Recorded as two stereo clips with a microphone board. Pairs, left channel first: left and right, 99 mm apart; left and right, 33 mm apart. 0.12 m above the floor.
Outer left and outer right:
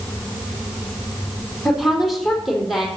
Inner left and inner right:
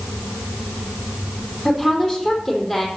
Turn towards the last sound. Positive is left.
turn(degrees=0)  # may be behind; listen again after turning